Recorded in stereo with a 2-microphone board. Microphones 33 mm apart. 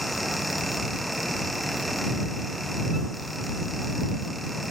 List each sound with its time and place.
Only background noise.